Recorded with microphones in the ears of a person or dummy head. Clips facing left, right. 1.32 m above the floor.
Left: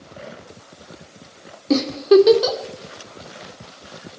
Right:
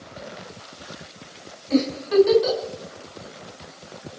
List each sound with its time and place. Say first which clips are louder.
1.7 s a giggle: left 6 dB; 70° left (ahead or behind), 2.5 m